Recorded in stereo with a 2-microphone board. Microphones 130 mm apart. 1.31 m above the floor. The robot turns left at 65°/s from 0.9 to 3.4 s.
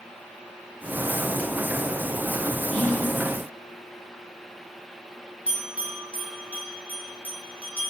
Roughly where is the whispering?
Centre.